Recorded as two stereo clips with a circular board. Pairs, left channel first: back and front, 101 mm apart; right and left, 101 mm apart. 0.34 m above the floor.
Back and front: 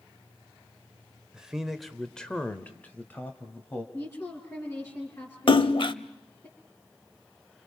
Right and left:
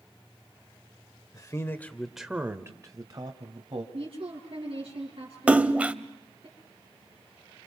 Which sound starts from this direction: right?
A man speaking, at 1.3 s.